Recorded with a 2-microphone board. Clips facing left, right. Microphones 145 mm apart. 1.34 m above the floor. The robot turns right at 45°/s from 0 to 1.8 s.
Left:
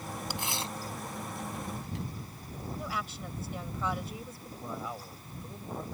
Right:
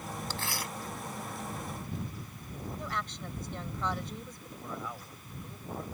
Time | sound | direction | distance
0.3 | tearing paper | 10° left (ahead or behind) | ?
2.8 | a woman speaking | 5° left (ahead or behind) | ?
4.6 | a man speaking | 20° left (ahead or behind) | ?